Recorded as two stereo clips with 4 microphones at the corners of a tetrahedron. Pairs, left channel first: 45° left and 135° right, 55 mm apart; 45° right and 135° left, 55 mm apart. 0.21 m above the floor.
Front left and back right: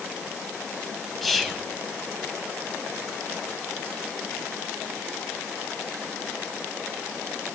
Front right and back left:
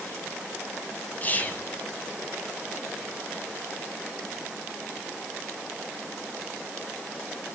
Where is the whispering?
40° right, 1.1 m.